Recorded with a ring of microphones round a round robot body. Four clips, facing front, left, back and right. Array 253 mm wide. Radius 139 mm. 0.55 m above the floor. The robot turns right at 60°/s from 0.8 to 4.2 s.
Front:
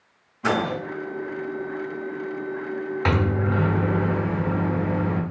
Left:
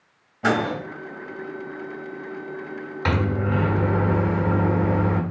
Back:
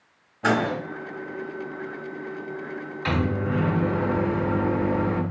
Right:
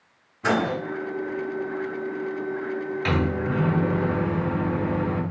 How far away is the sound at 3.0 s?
About 0.8 m.